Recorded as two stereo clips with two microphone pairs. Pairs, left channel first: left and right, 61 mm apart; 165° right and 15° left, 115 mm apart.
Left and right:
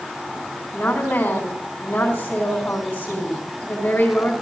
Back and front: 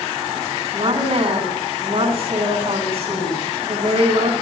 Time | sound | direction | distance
0.7 | a woman speaking | 35° left | 3.5 m